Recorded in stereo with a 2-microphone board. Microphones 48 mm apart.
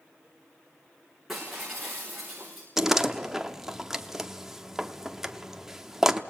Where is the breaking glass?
Centre (ahead or behind), 8 m.